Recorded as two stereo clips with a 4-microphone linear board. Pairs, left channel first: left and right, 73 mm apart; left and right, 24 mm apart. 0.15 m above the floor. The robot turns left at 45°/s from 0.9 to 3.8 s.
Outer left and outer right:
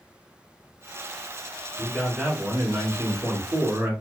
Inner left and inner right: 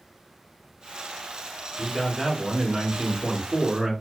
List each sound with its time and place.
1.8 s a man speaking: straight ahead, 1.3 m; by 3.9 s 95° right, 1.3 m